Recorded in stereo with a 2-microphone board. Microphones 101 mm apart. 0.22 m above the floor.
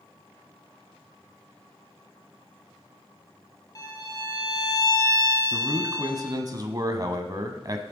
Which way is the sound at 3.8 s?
40° left (ahead or behind).